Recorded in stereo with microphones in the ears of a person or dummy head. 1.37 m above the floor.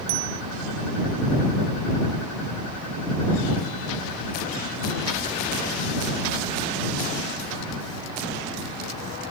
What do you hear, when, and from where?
0.1 s a bicycle bell: 70° right (ahead or behind)